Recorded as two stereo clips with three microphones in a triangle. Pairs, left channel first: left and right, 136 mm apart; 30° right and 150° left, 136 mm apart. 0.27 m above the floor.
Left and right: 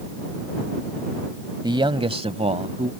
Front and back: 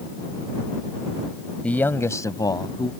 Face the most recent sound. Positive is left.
turn(degrees=-80)